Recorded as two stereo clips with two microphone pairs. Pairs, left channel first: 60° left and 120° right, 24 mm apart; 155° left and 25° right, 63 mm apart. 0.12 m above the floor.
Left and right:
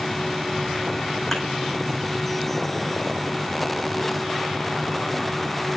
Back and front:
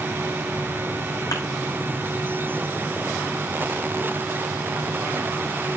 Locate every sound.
1.3 s a thud: 145° left, 3.5 m